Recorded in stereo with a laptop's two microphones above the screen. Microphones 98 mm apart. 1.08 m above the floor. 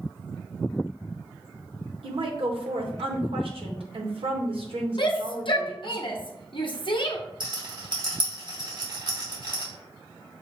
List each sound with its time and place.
2.0 s a woman speaking: 70° right (ahead or behind), 1.0 m
5.0 s a shout: 60° left (ahead or behind), 0.7 m
7.4 s a rattle: 55° right (ahead or behind), 2.5 m